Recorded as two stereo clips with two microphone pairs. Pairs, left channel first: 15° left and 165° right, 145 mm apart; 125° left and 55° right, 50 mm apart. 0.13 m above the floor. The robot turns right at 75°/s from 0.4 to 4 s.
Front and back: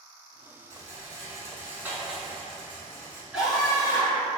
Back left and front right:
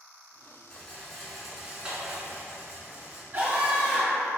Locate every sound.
0.7 s a rattle: 170° left, 0.9 m; by 3.2 s straight ahead, 0.9 m
3.3 s a scream: 85° right, 1.6 m; by 4.3 s 35° right, 1.6 m